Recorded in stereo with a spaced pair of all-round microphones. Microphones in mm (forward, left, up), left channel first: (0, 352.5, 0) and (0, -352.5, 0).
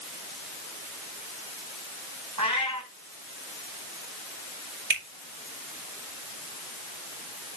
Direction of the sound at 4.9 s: 55° right (ahead or behind).